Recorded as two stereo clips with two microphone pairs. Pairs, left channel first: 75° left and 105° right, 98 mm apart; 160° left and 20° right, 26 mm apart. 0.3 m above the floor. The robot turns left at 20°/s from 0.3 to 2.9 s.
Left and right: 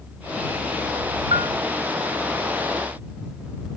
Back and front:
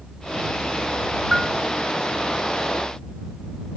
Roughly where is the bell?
Right.